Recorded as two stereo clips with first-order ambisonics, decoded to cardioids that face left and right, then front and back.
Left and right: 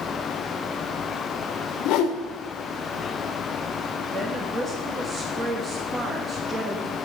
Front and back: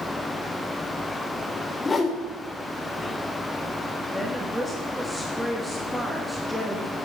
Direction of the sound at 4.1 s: 90° right.